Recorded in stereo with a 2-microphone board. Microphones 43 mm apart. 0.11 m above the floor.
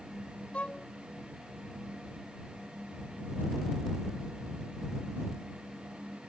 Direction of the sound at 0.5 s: 35° left (ahead or behind).